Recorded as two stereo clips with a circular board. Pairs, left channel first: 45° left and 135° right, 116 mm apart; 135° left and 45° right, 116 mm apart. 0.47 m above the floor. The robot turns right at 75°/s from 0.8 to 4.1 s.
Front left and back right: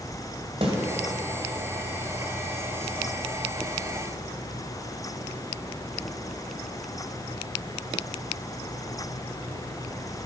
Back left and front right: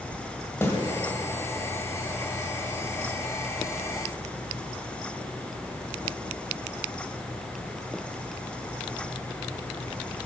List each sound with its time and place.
0.6 s a snare drum: 165° right, 1.7 m